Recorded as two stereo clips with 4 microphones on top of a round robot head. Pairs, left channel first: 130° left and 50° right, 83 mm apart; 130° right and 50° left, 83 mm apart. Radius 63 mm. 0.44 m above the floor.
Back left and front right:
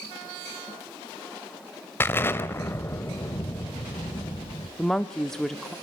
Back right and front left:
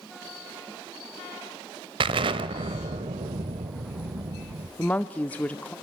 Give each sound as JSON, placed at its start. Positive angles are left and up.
{"t": 2.0, "sound": "an explosion", "azimuth_deg": 70, "distance_m": 1.0}
{"t": 4.8, "sound": "a woman speaking", "azimuth_deg": -155, "distance_m": 0.7}